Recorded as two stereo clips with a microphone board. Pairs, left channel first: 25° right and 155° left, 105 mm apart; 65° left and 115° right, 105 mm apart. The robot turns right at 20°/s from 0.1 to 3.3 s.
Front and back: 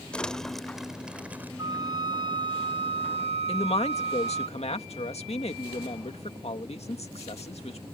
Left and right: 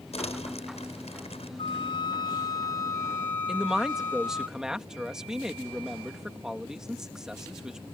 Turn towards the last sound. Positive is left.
turn(degrees=-30)